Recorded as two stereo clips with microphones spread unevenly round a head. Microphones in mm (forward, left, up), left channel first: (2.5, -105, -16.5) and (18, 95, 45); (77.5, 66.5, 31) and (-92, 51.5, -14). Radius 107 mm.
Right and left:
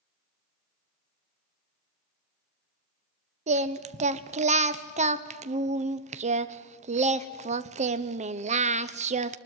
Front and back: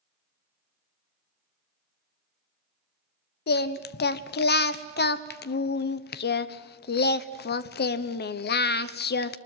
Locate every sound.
3.5 s singing: 30° left, 1.0 m